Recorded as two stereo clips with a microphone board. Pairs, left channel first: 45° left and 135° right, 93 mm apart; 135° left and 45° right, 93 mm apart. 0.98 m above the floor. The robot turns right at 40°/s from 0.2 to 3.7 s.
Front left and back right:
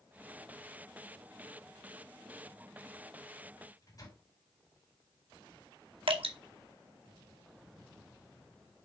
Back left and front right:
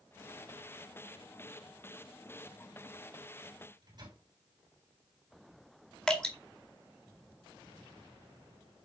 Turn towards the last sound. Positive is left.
turn(degrees=-145)